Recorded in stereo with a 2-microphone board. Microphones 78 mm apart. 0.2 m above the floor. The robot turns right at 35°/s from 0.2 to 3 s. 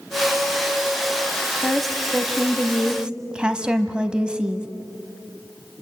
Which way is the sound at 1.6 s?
5° left (ahead or behind).